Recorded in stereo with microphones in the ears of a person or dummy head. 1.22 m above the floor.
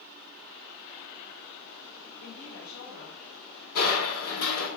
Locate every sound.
2.2 s a woman speaking: 80° left, 3.5 m; by 3.2 s 85° left, 4 m
3.8 s crushing: 60° left (ahead or behind), 2.5 m